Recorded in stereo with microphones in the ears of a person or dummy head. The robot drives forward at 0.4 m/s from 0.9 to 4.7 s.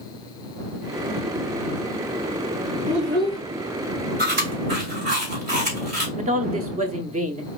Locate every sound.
2.9 s a child speaking: 60° right (ahead or behind), 2 m; by 3.4 s 55° right (ahead or behind), 2 m
4.2 s chewing: 60° right (ahead or behind), 2.5 m; by 6.1 s 55° right (ahead or behind), 2.5 m
6.2 s a woman speaking: 30° right (ahead or behind), 0.7 m